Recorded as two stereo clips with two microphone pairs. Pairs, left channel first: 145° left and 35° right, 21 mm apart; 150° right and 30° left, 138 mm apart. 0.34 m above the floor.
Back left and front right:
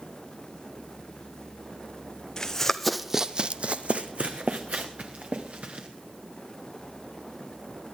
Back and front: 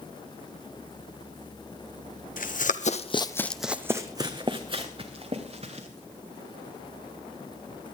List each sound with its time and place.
2.4 s running footsteps: 150° right, 1.1 m; by 5.9 s 10° right, 3 m